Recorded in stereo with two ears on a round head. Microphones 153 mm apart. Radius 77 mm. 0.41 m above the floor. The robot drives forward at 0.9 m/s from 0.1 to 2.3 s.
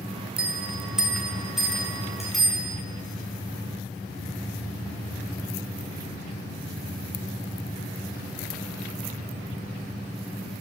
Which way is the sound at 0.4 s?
5° right (ahead or behind).